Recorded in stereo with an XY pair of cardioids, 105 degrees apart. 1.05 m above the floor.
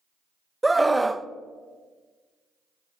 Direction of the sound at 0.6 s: 10° right.